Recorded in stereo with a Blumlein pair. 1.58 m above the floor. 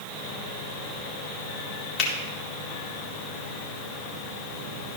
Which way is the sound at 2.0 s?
35° left.